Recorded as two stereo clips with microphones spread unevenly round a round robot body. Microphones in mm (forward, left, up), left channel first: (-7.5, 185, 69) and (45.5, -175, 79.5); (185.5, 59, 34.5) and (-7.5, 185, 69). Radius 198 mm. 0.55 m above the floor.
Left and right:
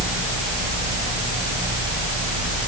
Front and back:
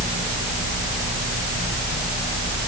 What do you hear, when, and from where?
Only background noise.